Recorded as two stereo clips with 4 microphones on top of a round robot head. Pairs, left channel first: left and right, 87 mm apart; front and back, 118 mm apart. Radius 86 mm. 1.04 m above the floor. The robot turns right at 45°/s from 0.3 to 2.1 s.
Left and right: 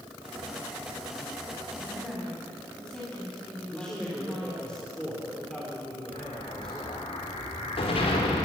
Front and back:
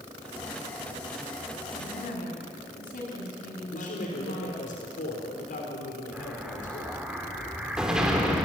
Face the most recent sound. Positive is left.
turn(degrees=95)